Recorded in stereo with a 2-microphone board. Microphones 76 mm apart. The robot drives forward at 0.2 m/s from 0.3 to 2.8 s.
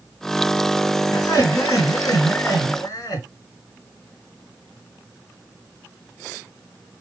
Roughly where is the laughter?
Left.